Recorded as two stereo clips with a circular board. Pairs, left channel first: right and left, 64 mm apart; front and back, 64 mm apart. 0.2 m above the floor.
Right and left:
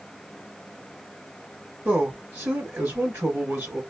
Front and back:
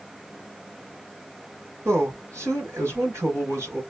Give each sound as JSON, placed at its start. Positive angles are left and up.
{"t": 1.9, "sound": "a man speaking", "azimuth_deg": 135, "distance_m": 2.5}